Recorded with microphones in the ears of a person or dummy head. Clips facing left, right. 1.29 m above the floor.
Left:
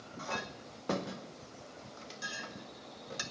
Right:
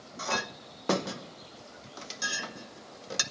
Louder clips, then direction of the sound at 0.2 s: Right 6 dB; 65° right (ahead or behind).